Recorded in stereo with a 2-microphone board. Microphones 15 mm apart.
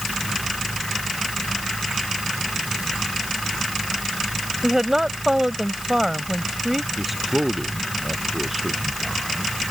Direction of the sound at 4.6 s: 30° right (ahead or behind).